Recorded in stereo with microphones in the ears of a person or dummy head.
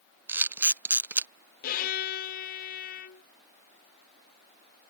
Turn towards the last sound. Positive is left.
turn(degrees=45)  # may be behind; listen again after turning